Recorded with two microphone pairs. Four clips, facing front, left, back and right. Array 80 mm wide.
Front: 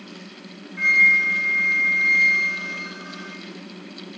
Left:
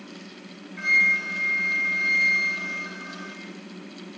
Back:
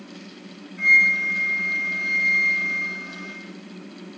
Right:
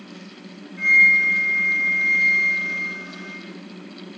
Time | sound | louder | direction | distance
0.8 | a flute | right 6 dB, front 1 dB | 30° left | 1.9 m